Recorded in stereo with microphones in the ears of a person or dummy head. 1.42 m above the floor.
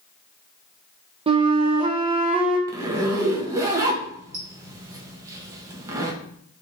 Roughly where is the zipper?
Centre.